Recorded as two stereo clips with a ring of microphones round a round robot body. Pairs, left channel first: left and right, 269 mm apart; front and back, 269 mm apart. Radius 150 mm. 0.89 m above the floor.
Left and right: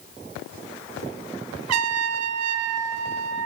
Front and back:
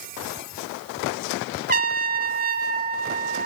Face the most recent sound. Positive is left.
turn(degrees=-125)